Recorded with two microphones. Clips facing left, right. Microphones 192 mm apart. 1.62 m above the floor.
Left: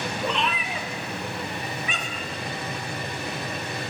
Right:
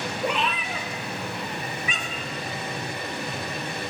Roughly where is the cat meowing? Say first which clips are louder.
Right 1 dB; centre.